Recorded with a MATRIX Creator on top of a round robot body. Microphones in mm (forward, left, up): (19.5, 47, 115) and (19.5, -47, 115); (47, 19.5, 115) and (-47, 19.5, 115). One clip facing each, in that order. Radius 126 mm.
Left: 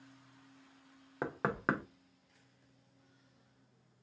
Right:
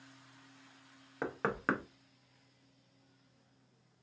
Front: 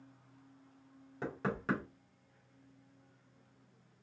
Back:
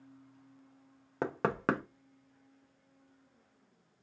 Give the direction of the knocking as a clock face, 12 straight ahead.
6 o'clock.